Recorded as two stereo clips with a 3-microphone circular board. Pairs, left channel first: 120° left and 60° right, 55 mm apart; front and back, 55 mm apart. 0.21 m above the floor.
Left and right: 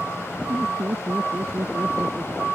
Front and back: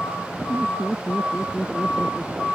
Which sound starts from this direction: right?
Laughter, at 0.5 s.